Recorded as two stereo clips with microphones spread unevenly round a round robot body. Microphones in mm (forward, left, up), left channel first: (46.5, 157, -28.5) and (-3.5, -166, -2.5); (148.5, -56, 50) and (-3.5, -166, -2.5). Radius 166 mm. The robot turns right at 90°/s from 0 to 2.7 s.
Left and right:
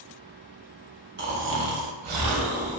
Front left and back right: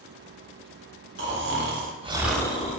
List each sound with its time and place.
1.2 s snoring: 160° right, 0.6 m; by 2.8 s 25° right, 0.6 m